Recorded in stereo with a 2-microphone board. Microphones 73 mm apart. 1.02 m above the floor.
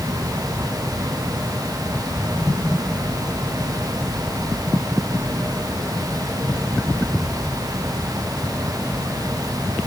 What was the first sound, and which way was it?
Only background noise.